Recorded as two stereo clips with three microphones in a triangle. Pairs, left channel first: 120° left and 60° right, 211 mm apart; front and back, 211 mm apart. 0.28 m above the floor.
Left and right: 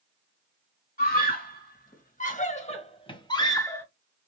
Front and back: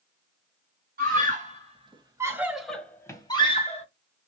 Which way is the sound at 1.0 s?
150° left.